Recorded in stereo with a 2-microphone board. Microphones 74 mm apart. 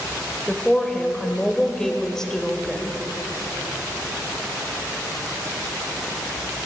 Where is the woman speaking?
5° left (ahead or behind), 1.4 m.